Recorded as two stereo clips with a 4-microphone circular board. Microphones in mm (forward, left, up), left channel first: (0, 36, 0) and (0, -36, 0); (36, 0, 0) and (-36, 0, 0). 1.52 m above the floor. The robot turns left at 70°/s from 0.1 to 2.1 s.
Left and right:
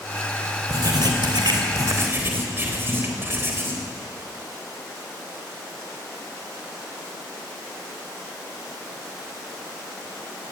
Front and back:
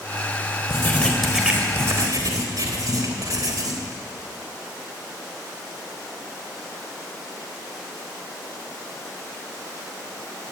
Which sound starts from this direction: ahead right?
Writing, at 0.7 s.